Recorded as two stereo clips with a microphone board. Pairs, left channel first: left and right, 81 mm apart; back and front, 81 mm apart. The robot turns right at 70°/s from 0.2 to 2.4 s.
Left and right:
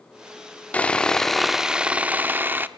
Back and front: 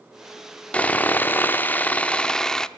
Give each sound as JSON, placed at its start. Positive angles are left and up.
{"t": 0.7, "sound": "sawing", "azimuth_deg": 130, "distance_m": 1.0}